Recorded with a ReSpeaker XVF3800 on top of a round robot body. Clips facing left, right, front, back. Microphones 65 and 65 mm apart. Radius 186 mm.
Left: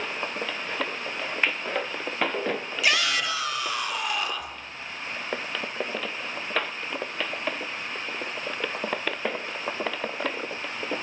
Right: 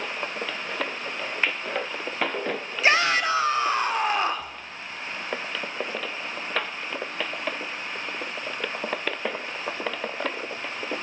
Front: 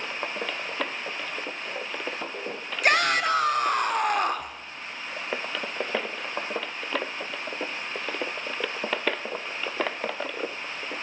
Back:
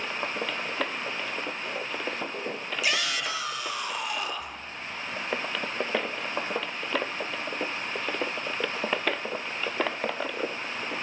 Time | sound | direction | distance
2.8 | a shout | 35° right | 1.5 m